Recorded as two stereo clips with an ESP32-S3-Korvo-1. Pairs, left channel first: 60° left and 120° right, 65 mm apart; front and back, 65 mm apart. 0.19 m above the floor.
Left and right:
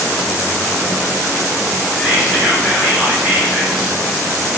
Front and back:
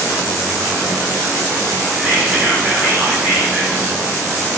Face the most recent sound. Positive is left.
turn(degrees=-175)